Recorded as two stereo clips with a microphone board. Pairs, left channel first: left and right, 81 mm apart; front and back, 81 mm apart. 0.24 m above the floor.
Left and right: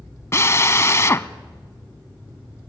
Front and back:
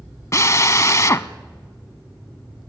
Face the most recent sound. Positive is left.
turn(degrees=40)